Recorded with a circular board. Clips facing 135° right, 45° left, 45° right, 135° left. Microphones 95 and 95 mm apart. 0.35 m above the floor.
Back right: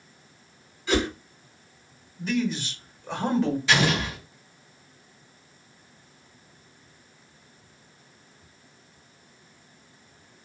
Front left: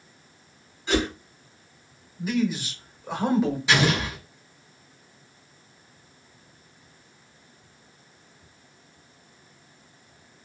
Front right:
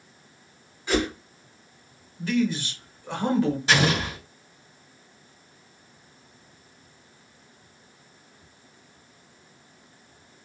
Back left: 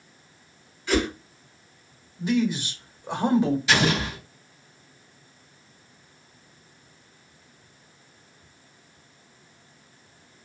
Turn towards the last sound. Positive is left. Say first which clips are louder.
# front left 1 dB, even
turn(degrees=-20)